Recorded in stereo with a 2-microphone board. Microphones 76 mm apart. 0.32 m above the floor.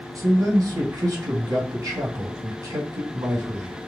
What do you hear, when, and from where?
0.1 s a man speaking: 55° right (ahead or behind), 2.5 m